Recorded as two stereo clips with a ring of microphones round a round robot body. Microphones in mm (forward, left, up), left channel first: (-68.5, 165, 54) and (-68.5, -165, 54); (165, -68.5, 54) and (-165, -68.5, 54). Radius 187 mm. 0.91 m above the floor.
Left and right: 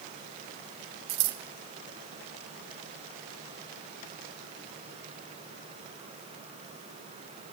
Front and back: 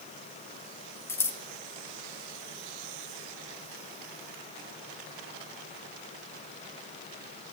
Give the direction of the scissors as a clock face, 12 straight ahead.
3 o'clock.